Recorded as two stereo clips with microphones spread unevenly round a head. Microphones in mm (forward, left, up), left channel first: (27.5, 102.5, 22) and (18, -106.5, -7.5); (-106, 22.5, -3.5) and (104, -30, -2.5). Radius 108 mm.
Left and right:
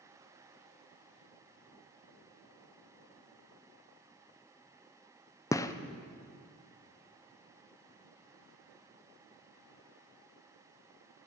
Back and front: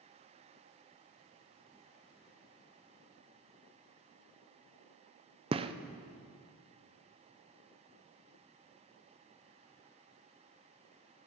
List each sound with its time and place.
5.5 s a gunshot: 10° left, 0.5 m